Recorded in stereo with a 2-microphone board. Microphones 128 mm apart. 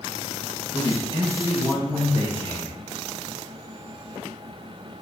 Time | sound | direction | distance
0.7 | a man speaking | 40° right (ahead or behind) | 1.5 m